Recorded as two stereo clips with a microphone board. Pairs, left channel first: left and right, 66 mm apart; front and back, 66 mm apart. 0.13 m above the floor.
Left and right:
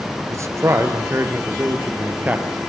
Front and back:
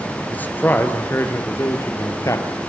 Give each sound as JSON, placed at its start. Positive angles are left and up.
{"t": 0.3, "sound": "a man speaking", "azimuth_deg": -60, "distance_m": 2.0}